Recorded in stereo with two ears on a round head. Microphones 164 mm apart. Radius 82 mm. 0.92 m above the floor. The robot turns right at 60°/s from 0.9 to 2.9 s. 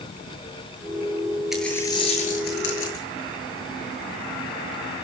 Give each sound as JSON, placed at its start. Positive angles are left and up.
{"t": 1.5, "sound": "a dropped coin", "azimuth_deg": 0, "distance_m": 9.0}